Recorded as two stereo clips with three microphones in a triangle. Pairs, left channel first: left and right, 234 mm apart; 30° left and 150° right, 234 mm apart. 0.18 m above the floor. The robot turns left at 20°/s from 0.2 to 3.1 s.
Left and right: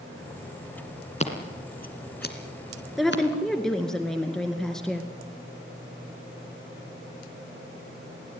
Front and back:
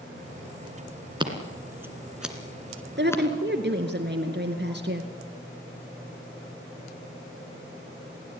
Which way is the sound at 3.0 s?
Straight behind.